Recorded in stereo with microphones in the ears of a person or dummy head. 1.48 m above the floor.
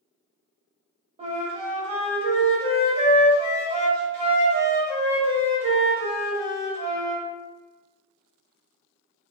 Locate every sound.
1.2 s a flute: 35° right (ahead or behind), 0.7 m